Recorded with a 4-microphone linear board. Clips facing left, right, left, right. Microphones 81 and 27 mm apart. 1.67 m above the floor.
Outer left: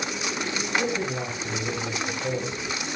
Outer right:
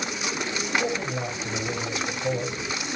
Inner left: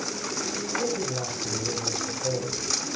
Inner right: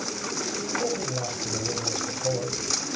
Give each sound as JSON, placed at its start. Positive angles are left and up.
{"t": 0.8, "sound": "a man speaking", "side_deg": 35, "distance_m": 7.0}